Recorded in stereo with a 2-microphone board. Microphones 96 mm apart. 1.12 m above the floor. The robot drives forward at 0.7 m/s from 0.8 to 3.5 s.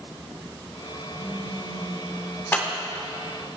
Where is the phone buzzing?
60° left (ahead or behind), 2.0 m; by 2.4 s 75° left (ahead or behind), 1.8 m.